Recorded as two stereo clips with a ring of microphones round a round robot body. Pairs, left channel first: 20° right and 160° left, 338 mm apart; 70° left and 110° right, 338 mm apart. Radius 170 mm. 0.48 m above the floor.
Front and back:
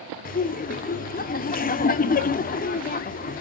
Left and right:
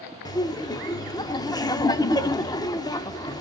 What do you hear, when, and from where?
0.2 s laughter: straight ahead, 0.7 m